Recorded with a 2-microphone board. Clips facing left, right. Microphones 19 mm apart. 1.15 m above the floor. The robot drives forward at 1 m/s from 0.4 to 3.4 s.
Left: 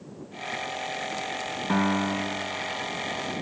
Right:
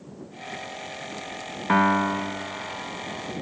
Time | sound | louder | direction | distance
1.7 | a piano | right 5 dB | 30° right (ahead or behind) | 0.5 m